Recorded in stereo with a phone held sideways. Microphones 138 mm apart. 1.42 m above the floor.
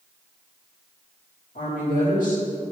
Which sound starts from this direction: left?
A woman speaking, at 1.6 s.